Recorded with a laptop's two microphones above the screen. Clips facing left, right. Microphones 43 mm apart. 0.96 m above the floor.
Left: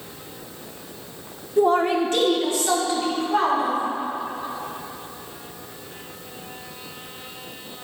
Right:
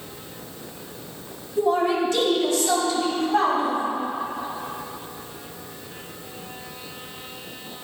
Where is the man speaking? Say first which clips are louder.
Left 2 dB; 60° left (ahead or behind), 1.0 m; by 3.8 s 25° left (ahead or behind), 3 m.